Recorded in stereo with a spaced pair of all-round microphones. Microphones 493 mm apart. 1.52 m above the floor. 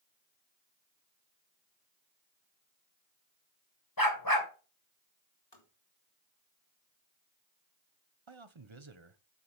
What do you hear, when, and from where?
4.0 s a dog barking: 45° left (ahead or behind), 2.5 m
5.5 s tapping: 55° left (ahead or behind), 3.5 m
8.3 s a man speaking: 65° right (ahead or behind), 1.1 m